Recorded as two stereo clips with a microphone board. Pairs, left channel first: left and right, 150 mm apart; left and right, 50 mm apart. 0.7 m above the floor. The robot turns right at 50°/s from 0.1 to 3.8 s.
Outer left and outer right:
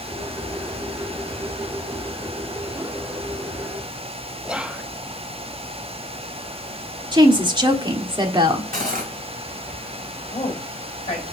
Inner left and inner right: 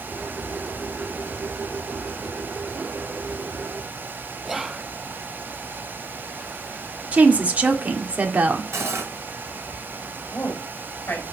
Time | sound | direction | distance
4.4 | whispering | 5° right (ahead or behind) | 0.6 m
7.1 | a woman speaking | 30° right (ahead or behind) | 1.5 m
8.7 | cutlery clinking | 75° right (ahead or behind) | 2.0 m
10.3 | a woman speaking | 45° left (ahead or behind) | 4 m